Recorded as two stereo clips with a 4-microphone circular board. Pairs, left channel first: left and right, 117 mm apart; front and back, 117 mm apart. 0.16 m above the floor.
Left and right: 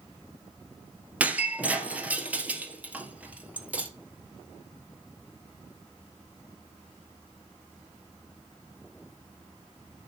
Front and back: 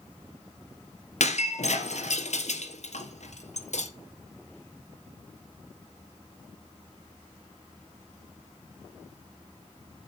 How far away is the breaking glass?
About 2 m.